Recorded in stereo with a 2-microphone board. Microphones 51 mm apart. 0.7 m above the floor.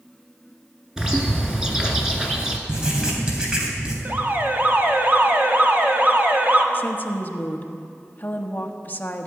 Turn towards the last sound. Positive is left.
turn(degrees=35)  # may be behind; listen again after turning